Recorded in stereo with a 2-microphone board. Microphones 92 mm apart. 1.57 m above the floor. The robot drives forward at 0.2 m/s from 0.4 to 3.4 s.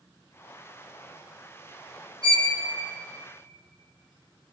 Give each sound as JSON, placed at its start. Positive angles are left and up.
{"t": 2.2, "sound": "a violin", "side_deg": -50, "distance_m": 1.2}